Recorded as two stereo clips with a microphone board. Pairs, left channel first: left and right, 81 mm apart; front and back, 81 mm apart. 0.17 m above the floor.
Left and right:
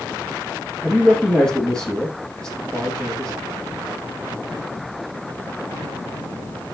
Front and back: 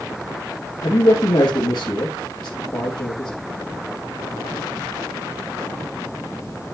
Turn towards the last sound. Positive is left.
turn(degrees=15)